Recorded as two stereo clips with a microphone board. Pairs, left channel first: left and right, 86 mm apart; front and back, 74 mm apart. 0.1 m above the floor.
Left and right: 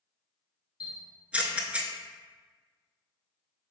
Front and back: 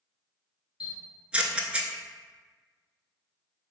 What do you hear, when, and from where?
0.8 s a camera shutter: 135° right, 0.5 m